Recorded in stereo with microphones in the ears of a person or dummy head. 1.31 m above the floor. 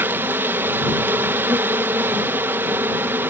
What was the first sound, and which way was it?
An insect, 10° right (ahead or behind).